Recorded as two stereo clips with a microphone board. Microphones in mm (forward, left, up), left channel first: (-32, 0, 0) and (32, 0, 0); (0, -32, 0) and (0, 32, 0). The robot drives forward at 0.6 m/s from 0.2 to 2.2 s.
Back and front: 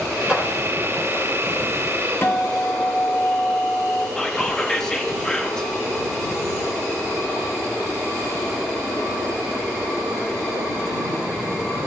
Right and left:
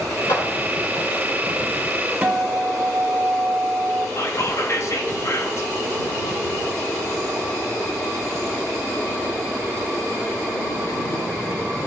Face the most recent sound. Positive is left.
turn(degrees=-105)